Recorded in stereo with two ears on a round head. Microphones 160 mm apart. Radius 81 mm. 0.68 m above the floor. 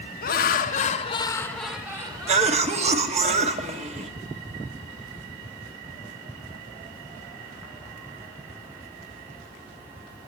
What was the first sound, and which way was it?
Laughter, 55° left (ahead or behind).